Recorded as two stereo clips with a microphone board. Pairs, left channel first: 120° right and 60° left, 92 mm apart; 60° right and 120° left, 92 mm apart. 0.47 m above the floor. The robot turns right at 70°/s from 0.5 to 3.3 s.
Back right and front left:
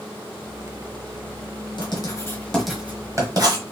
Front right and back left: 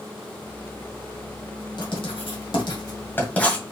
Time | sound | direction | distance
1.8 | writing | 95° right | 1.5 m